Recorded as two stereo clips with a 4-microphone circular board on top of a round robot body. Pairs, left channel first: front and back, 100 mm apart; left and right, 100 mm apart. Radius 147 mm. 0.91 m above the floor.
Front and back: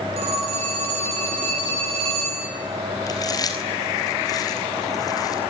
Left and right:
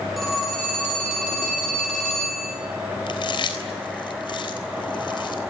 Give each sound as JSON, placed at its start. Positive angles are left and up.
{"t": 0.2, "sound": "a phone ringing", "azimuth_deg": 180, "distance_m": 9.5}
{"t": 3.1, "sound": "chewing", "azimuth_deg": 50, "distance_m": 3.5}